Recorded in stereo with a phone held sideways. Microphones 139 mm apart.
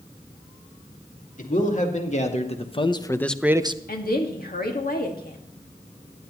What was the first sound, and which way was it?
A man speaking, 60° left (ahead or behind).